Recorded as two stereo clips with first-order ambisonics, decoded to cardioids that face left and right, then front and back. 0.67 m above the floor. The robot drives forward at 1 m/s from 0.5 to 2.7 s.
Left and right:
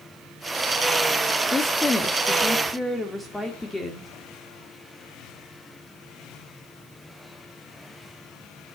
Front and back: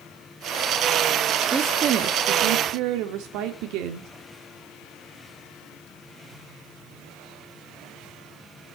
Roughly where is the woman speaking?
Behind left.